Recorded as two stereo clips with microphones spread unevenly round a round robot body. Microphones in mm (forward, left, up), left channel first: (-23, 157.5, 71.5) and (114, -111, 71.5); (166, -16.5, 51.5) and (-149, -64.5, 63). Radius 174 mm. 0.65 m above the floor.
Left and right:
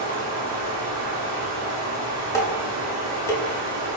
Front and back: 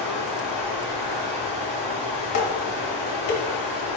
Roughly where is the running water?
Right.